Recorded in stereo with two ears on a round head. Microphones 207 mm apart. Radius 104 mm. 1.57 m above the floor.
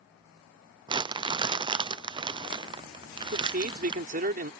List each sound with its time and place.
0.9 s crumpling: 20° right (ahead or behind)
3.3 s a man speaking: 40° right (ahead or behind)